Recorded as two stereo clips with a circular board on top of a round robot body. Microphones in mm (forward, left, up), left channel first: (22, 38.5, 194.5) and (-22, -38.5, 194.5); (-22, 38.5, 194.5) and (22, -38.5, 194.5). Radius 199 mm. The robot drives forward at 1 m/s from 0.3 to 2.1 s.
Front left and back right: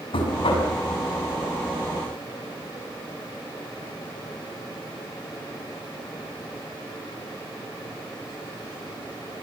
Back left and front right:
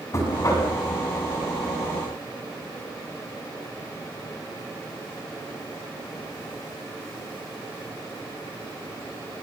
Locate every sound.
0.1 s knocking: 65° left, 6.5 m